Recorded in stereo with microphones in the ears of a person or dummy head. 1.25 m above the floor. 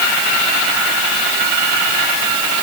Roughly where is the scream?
I don't hear a scream.